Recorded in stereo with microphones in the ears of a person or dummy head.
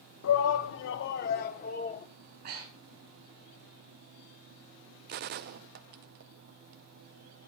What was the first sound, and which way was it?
A shout, 75° left (ahead or behind).